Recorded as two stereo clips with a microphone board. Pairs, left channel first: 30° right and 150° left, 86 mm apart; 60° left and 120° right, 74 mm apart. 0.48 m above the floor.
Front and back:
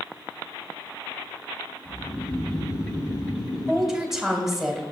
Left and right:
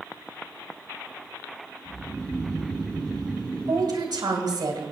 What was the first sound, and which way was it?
Snoring, 10° right.